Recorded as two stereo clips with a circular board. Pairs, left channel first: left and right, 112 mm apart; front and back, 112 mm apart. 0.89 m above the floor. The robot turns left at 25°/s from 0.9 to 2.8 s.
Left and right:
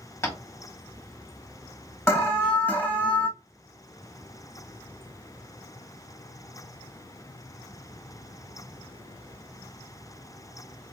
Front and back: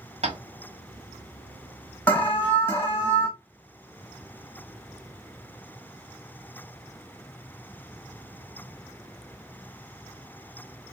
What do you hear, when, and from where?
0.2 s tapping: 155° left, 1.4 m
2.1 s an alarm: 50° left, 1.5 m; by 3.3 s 30° left, 1.5 m